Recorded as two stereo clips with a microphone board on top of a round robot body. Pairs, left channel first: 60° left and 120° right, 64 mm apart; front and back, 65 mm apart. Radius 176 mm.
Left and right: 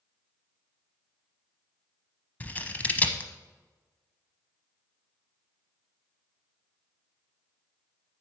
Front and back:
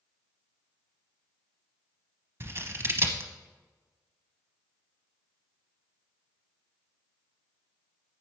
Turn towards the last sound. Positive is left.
turn(degrees=125)